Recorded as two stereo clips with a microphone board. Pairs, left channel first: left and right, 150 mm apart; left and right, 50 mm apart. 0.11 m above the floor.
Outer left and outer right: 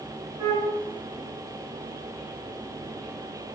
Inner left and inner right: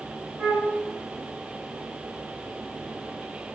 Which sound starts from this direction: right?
A flute, at 0.4 s.